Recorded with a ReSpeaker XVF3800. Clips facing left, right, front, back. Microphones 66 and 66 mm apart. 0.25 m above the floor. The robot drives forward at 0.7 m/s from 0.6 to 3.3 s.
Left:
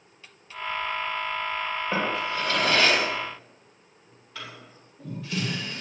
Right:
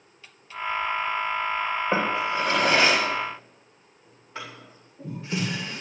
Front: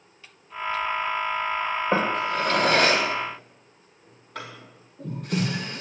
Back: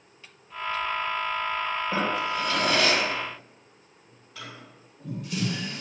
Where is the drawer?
25° right, 9.5 m.